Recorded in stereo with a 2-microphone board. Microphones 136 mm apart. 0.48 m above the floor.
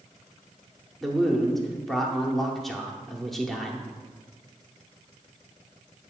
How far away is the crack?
I don't hear a crack.